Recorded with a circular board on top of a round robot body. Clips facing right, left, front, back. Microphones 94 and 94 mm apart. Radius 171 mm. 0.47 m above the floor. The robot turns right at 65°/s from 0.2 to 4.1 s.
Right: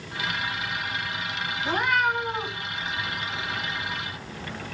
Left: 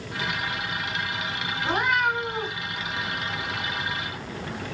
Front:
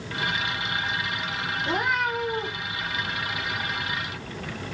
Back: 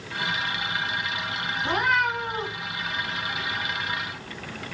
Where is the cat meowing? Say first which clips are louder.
Even, back 2 dB; 150° left, 1.5 m; by 2.5 s 150° right, 1.5 m.